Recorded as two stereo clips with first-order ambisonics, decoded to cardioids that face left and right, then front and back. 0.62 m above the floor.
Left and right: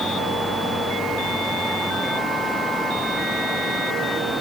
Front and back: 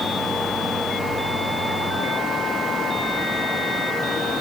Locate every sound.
Only background noise.